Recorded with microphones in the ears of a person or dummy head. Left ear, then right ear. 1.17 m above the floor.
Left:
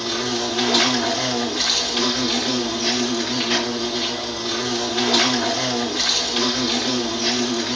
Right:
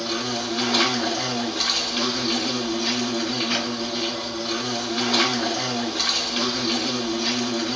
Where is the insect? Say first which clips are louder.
Left 3 dB; centre (ahead or behind), 2.5 m.